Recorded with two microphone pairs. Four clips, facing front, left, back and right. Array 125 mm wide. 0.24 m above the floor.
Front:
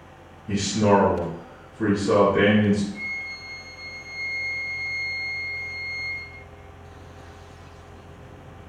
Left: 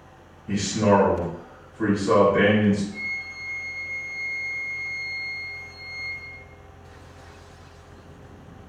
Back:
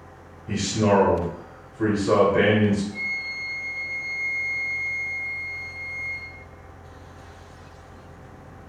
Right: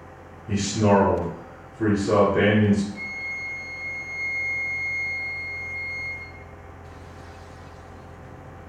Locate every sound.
0.5 s a man speaking: 115° left, 1.0 m
2.9 s a flute: 95° left, 0.7 m